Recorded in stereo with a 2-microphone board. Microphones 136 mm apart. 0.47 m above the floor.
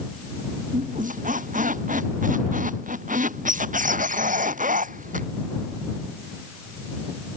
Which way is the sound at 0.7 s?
75° right (ahead or behind).